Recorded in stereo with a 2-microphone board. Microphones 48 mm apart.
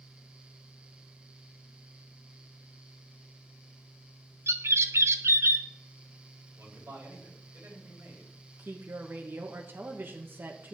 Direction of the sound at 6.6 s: 55° right (ahead or behind).